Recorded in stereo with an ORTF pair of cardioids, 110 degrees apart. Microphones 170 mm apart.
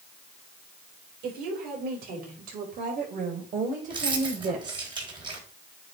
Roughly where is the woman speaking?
Right.